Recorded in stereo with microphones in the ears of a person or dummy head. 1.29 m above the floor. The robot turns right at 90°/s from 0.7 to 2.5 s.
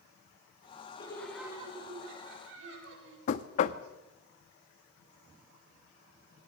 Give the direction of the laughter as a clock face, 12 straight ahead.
7 o'clock.